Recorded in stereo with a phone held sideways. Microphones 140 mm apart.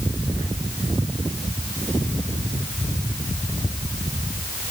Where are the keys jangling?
I don't hear keys jangling.